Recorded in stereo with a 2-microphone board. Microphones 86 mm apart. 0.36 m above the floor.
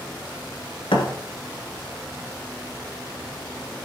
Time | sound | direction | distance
0.9 | a thud | 85° left | 1.5 m